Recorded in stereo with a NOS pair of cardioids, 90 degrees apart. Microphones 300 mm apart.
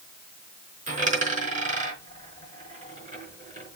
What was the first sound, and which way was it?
A dropped coin, 25° right.